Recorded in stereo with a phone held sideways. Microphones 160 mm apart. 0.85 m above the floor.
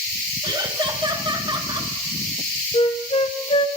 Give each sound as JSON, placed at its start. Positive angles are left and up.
{"t": 0.4, "sound": "laughter", "side_deg": -30, "distance_m": 1.6}
{"t": 2.7, "sound": "a flute", "side_deg": 40, "distance_m": 0.9}